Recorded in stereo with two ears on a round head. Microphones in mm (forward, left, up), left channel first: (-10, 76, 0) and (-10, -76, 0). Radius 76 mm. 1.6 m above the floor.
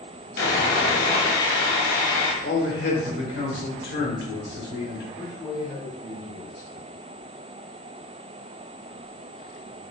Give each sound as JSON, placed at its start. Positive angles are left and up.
{"t": 0.4, "sound": "sawing", "side_deg": 60, "distance_m": 1.0}
{"t": 2.4, "sound": "a man speaking", "side_deg": 60, "distance_m": 1.3}
{"t": 5.2, "sound": "a man speaking", "side_deg": 30, "distance_m": 1.5}